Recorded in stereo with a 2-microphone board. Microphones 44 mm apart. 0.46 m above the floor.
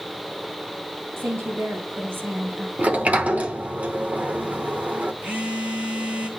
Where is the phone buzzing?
40° right (ahead or behind), 1.8 m.